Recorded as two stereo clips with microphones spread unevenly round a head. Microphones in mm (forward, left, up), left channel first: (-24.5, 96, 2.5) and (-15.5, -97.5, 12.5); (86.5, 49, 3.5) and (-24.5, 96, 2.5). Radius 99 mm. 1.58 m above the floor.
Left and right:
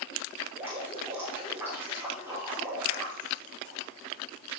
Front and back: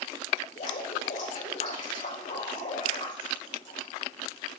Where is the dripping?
5° right, 5 m.